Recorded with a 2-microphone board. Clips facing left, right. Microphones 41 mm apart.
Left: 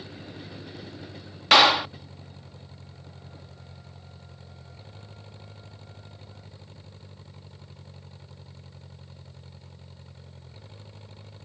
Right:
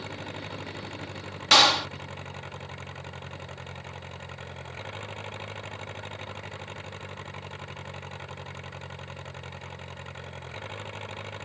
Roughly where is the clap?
Centre.